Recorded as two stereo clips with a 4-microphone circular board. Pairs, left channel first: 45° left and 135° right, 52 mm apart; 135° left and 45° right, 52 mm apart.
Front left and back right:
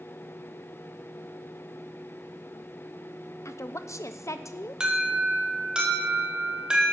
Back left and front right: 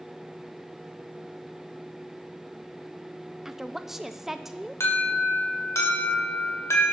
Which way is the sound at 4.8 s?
150° left.